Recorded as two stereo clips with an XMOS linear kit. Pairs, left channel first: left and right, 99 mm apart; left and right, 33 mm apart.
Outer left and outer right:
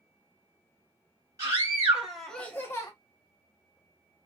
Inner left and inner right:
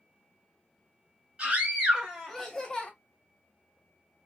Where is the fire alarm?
I don't hear a fire alarm.